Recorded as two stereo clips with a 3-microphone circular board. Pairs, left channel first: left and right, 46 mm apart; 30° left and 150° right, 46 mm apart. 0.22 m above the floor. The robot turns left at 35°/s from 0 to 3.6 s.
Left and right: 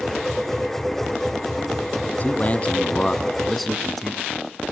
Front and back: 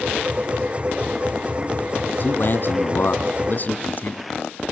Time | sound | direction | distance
2.1 | a man speaking | 55° left | 2 m